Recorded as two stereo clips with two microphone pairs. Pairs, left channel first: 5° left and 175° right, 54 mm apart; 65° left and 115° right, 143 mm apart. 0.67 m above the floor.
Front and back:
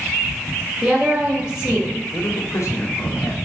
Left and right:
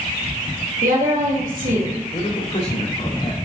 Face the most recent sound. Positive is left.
turn(degrees=30)